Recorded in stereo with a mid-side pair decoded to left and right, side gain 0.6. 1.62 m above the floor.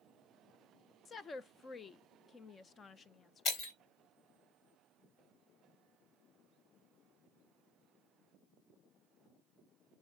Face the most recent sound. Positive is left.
turn(degrees=65)